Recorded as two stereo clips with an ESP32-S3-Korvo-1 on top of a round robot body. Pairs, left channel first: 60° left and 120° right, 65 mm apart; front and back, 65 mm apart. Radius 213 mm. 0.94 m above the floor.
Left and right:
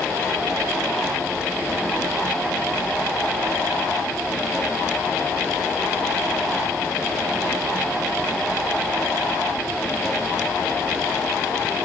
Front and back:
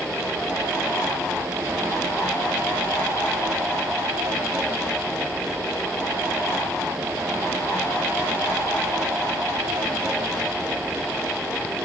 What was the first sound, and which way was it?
Only background noise.